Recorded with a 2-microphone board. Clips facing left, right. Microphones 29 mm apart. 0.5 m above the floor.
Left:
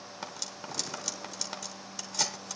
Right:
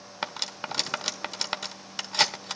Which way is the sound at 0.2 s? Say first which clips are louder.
Right 9 dB; 50° right (ahead or behind).